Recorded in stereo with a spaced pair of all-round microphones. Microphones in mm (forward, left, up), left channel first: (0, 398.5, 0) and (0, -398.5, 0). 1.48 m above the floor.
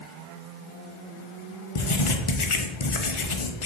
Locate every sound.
1.8 s writing: 40° left (ahead or behind), 0.7 m